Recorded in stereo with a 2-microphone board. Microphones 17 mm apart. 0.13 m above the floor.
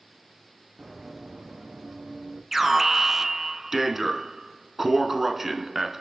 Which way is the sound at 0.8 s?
15° right (ahead or behind).